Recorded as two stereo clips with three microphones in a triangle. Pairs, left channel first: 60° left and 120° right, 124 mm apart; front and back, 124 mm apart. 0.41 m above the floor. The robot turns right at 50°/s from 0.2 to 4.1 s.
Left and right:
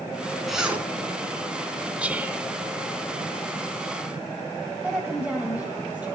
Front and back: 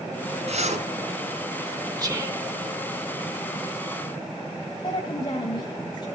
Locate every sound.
0.5 s a zipper: 150° left, 3 m; by 0.9 s 170° left, 3 m
2.0 s whispering: 170° left, 0.9 m; by 2.4 s 170° right, 0.9 m
4.8 s a woman speaking: 40° right, 2.5 m